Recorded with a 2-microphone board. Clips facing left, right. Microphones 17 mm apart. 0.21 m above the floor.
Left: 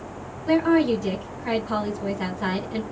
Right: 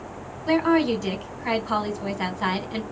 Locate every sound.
0.5 s a woman speaking: 35° right (ahead or behind), 1.3 m